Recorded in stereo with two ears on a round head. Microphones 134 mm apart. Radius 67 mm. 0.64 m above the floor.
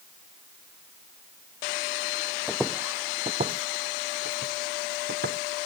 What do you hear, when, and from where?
2.5 s footsteps: centre (ahead or behind); by 5.4 s 75° right (ahead or behind)